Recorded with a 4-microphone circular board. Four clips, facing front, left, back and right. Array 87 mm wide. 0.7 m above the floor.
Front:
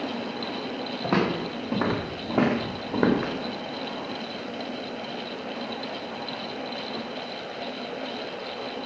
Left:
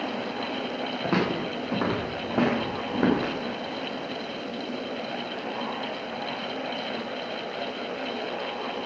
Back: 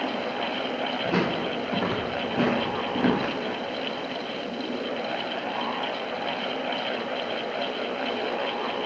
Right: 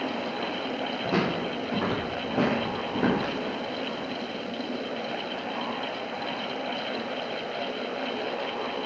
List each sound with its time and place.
1.0 s footsteps: 35° left, 7.5 m; by 3.3 s 20° left, 6 m